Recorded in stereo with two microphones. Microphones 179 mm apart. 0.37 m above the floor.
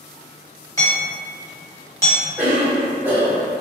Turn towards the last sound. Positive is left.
turn(degrees=-10)  # may be behind; listen again after turning